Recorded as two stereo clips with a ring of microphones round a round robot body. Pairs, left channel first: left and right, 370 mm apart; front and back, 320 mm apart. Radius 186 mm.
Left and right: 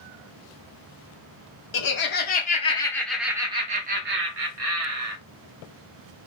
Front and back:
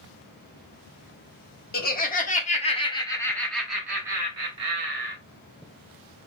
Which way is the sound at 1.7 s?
50° left.